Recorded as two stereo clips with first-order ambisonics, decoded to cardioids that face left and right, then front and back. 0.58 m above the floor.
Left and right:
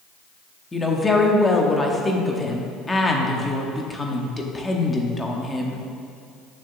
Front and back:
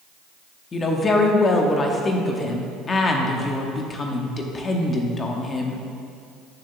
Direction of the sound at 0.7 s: 30° left.